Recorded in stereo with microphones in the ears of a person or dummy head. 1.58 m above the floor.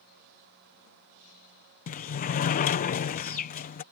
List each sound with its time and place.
1.9 s a sliding door: 40° left (ahead or behind)